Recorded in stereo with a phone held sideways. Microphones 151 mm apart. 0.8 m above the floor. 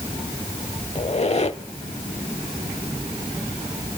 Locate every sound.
0.9 s a squeak: 45° left (ahead or behind), 0.8 m